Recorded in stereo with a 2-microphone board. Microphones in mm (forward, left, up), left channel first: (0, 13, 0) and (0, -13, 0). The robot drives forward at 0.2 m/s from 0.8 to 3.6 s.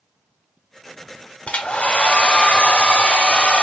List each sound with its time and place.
1.5 s a hair dryer: 45° left (ahead or behind), 0.8 m; by 3.6 s 40° left (ahead or behind), 0.9 m